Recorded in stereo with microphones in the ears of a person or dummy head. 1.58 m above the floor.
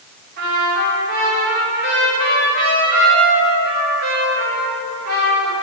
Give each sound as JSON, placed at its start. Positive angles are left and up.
{"t": 0.4, "sound": "a trumpet", "side_deg": -55, "distance_m": 3.0}